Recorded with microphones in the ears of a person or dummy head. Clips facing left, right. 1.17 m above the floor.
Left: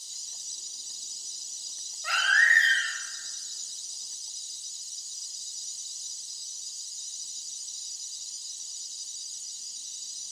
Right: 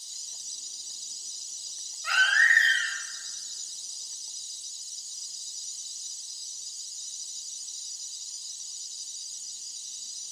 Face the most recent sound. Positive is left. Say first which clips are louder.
# right 1 dB
turn(degrees=35)  # may be behind; listen again after turning